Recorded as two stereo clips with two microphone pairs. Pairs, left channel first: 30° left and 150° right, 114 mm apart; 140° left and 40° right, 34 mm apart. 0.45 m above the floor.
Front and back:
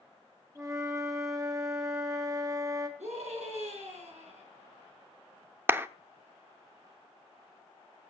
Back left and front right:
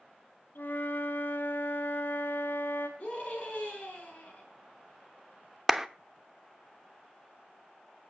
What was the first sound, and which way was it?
A flute, 150° left.